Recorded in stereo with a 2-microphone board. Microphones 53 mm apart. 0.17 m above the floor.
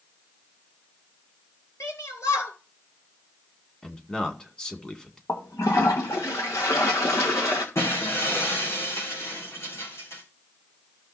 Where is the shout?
70° left (ahead or behind), 3.5 m.